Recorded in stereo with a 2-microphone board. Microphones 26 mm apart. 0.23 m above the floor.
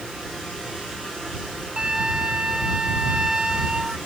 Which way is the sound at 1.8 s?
25° right (ahead or behind).